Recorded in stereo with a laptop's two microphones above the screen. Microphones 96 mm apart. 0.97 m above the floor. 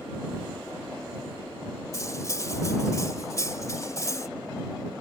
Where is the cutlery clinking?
35° left (ahead or behind).